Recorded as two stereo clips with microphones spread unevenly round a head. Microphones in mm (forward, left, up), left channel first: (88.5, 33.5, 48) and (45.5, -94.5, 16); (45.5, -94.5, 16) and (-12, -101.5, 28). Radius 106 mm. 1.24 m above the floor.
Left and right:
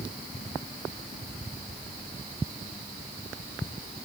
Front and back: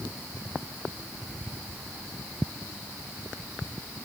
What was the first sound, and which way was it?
Only background noise.